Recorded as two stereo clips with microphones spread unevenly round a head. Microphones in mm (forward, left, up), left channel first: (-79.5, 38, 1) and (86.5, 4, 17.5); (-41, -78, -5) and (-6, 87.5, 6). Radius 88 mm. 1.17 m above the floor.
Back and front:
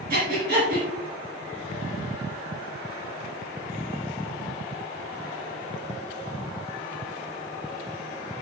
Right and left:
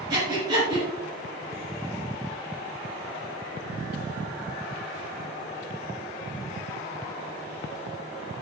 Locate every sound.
0.1 s breathing: 15° left, 3.5 m